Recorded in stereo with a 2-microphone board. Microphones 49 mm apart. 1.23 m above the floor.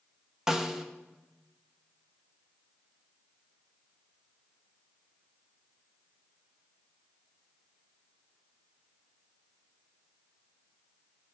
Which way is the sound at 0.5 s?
15° right (ahead or behind).